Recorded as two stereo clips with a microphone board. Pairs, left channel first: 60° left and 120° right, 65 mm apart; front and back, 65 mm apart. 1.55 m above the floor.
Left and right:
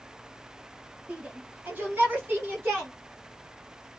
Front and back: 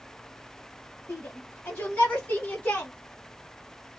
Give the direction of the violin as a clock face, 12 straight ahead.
I don't hear a violin.